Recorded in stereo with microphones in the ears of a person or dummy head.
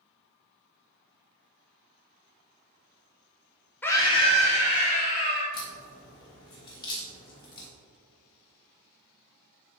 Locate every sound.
3.8 s a scream: 10° left (ahead or behind), 0.7 m; by 5.4 s 40° left (ahead or behind), 3 m
5.5 s a crack: 20° left (ahead or behind), 1.2 m